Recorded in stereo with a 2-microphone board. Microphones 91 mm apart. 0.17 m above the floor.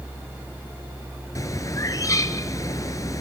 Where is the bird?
40° left (ahead or behind), 1.2 m.